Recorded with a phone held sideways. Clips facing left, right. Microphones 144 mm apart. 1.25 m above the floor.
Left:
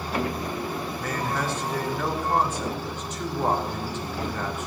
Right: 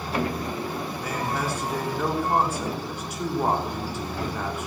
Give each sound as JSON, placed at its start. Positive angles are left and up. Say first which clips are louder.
{"t": 1.0, "sound": "a man speaking", "louder": "even", "side_deg": -10, "distance_m": 3.5}